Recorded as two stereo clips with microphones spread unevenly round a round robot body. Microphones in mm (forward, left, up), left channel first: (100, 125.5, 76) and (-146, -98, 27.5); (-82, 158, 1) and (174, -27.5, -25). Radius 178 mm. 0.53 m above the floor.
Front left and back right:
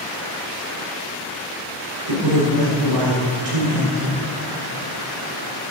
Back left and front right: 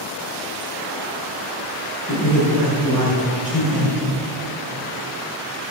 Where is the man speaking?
125° right, 2.5 m.